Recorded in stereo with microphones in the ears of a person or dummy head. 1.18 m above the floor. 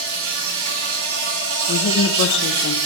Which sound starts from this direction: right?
An insect, at 0.0 s.